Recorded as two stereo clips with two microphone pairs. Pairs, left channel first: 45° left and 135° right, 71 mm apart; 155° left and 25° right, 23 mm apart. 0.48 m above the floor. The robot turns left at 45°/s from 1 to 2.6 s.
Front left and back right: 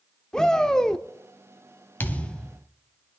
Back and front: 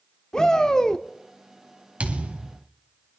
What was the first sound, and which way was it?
A shout, 120° left.